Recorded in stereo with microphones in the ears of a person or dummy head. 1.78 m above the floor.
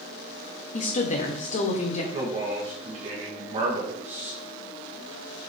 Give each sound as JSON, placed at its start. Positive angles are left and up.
{"t": 0.7, "sound": "a woman speaking", "side_deg": 40, "distance_m": 1.3}
{"t": 2.1, "sound": "a man speaking", "side_deg": -30, "distance_m": 2.5}